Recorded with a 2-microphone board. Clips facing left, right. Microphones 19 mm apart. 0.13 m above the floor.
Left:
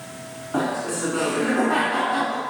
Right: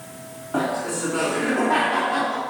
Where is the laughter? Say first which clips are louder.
Even; centre (ahead or behind), 1.1 m.